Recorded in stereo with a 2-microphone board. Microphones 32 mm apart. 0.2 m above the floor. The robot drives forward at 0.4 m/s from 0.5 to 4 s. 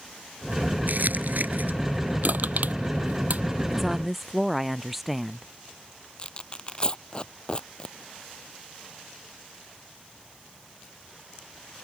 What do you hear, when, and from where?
0.9 s crumpling: 65° right (ahead or behind)
2.2 s crushing: 65° right (ahead or behind); by 3.4 s 60° right (ahead or behind)
3.7 s a woman speaking: 5° right (ahead or behind)
6.2 s tearing paper: 30° left (ahead or behind)